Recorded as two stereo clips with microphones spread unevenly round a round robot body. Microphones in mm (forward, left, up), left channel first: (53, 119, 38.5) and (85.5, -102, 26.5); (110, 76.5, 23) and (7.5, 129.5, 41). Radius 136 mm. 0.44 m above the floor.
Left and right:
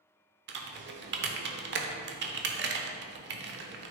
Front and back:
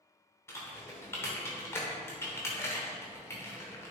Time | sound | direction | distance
0.5 | typing on a keyboard | 85° right | 0.7 m